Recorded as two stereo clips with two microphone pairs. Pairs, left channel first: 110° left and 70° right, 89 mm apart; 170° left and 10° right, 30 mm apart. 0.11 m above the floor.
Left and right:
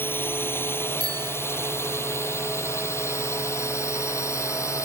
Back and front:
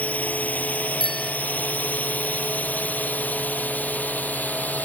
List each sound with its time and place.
0.0 s a drone: 170° left; by 4.9 s 160° left
1.0 s a bicycle bell: 120° right